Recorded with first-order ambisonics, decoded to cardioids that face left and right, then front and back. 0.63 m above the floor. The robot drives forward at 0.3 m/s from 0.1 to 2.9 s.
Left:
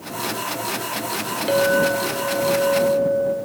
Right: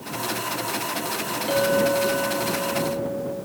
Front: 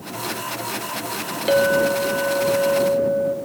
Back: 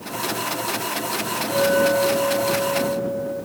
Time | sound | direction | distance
1.5 | a clink | 20° left | 1.0 m